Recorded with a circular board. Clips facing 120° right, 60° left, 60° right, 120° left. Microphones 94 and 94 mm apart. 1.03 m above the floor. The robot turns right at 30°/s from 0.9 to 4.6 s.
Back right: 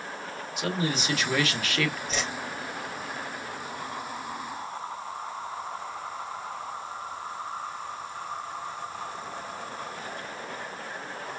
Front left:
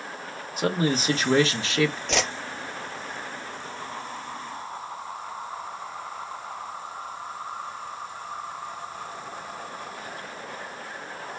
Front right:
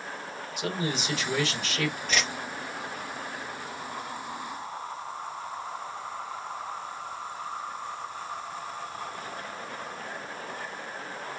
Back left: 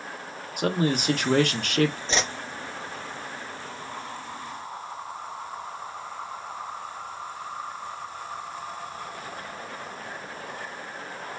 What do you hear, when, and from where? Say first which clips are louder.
0.6 s a man speaking: front left 5 dB, back left 7 dB; 100° left, 1.4 m; by 2.0 s 130° left, 1.4 m
2.1 s a whoosh: front left 5 dB, back left 2 dB; 55° left, 0.7 m; by 2.3 s 65° left, 0.7 m